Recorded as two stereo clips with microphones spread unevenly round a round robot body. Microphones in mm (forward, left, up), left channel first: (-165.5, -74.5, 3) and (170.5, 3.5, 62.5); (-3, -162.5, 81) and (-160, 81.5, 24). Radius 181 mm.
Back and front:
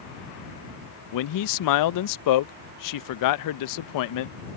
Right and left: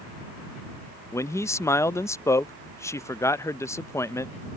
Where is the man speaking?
145° right.